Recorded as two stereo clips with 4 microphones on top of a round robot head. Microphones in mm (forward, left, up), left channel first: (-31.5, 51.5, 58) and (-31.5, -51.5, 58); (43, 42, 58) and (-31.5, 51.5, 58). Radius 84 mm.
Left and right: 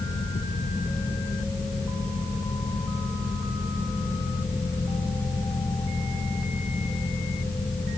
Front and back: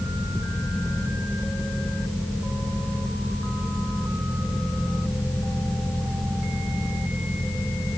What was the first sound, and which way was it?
Only background noise.